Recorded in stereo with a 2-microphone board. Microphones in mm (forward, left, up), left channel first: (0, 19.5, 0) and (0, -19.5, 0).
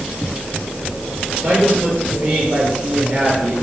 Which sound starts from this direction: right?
A woman speaking, at 1.4 s.